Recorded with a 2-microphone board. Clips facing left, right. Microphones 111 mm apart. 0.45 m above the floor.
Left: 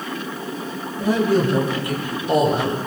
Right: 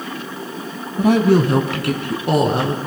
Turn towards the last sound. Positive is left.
turn(degrees=-75)  # may be behind; listen again after turning